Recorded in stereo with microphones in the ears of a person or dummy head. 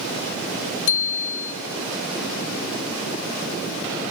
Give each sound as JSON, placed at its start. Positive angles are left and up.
{"t": 0.9, "sound": "a bicycle bell", "side_deg": 65, "distance_m": 2.0}